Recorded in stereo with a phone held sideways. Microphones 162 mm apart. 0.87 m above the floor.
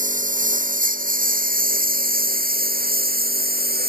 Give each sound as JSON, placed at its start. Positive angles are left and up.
{"t": 0.0, "sound": "a lawn mower", "side_deg": -55}